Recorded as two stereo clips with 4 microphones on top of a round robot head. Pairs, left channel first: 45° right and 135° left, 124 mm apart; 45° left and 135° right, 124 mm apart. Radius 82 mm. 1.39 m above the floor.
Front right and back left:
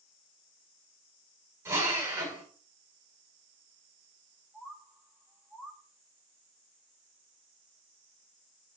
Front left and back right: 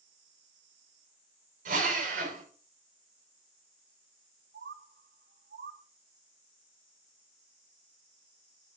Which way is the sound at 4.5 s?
140° right.